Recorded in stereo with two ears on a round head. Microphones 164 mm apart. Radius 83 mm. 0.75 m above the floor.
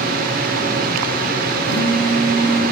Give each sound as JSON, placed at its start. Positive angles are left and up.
{"t": 1.7, "sound": "a phone buzzing", "side_deg": 65, "distance_m": 2.5}